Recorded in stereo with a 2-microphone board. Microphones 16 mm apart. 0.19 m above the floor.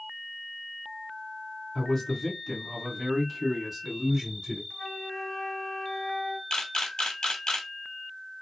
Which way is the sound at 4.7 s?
45° left (ahead or behind).